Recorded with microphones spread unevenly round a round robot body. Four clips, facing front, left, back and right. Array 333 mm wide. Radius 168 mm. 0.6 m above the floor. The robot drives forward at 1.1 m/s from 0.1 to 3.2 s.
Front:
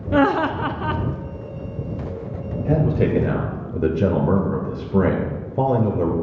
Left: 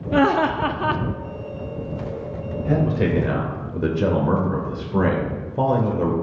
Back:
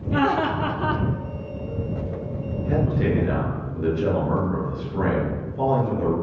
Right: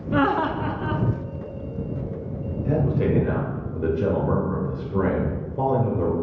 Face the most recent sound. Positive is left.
turn(degrees=25)